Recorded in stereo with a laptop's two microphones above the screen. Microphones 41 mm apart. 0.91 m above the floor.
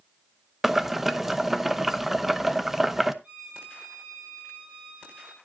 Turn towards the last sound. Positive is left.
turn(degrees=-45)  # may be behind; listen again after turning